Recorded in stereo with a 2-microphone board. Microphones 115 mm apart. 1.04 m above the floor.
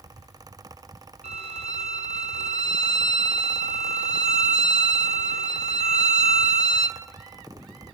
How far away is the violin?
About 1.1 m.